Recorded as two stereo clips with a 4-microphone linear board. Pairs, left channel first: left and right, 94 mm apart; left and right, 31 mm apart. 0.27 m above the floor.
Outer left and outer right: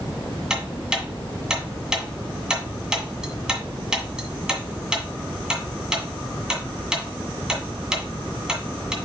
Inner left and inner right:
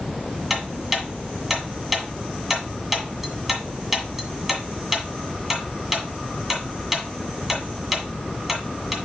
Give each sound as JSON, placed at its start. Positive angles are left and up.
{"t": 0.5, "sound": "ticking", "side_deg": -10, "distance_m": 1.8}